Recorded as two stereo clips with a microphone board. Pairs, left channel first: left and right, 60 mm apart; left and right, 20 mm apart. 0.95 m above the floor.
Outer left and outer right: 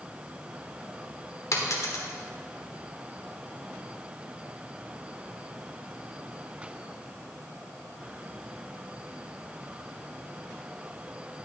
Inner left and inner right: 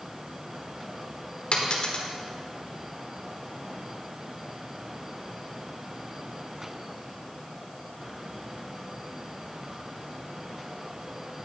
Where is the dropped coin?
55° left (ahead or behind), 1.3 m.